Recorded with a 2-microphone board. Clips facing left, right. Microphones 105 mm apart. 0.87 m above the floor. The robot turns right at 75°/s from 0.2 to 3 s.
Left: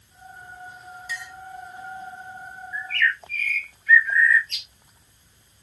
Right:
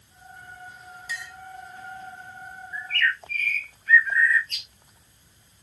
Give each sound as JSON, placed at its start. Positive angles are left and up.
{"t": 1.1, "sound": "a clink", "side_deg": 0, "distance_m": 1.9}
{"t": 2.7, "sound": "a bird", "side_deg": -35, "distance_m": 0.6}